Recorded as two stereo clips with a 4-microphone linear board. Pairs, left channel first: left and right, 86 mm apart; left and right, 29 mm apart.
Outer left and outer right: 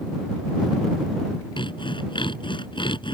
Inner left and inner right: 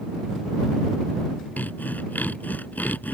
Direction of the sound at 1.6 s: 70° left (ahead or behind).